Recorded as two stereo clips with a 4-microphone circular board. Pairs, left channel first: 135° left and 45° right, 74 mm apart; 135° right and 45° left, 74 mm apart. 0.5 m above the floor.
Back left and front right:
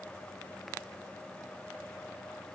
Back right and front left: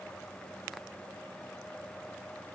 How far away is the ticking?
No ticking in this recording.